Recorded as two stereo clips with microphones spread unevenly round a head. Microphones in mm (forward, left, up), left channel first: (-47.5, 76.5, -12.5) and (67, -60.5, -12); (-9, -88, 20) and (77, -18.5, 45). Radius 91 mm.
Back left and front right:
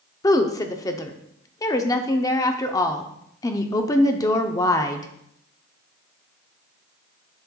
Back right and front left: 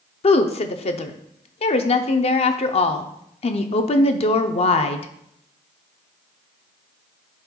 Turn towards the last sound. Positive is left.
turn(degrees=-155)